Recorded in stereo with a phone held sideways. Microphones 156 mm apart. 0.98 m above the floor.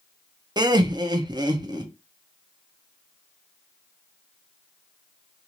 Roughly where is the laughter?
Right.